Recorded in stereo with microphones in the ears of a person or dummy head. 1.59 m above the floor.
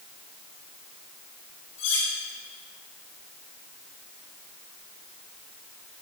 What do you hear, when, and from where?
1.8 s cutlery clinking: 70° left (ahead or behind), 4.5 m